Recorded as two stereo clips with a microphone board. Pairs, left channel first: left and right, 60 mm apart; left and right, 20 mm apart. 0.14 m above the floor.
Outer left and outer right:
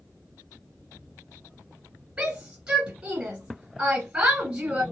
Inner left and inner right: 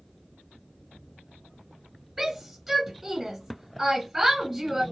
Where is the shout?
20° right (ahead or behind), 1.9 m.